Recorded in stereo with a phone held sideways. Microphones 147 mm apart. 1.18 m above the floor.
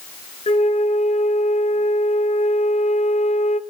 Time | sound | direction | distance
0.5 | a flute | 45° left (ahead or behind) | 0.8 m